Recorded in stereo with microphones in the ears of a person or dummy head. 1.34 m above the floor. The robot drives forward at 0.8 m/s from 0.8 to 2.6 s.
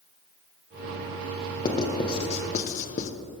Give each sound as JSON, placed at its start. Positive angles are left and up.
{"t": 1.6, "sound": "writing", "side_deg": 25, "distance_m": 1.6}